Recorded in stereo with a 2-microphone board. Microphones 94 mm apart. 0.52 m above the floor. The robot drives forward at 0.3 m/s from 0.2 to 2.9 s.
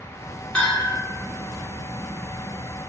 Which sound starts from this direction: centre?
A bell, at 0.6 s.